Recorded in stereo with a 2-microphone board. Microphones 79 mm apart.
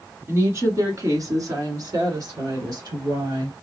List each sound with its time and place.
0.3 s a woman speaking: 35° right (ahead or behind), 1.6 m; by 3.5 s 55° right (ahead or behind), 3 m